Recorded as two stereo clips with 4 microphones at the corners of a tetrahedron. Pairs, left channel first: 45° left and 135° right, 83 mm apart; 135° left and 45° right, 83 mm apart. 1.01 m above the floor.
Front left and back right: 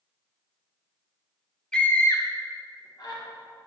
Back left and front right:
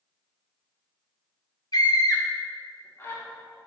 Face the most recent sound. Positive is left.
turn(degrees=75)